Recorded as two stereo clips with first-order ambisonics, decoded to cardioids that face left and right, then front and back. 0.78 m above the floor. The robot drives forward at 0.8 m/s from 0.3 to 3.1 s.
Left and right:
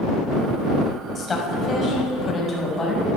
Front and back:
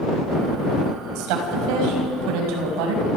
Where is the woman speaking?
165° left, 5 m.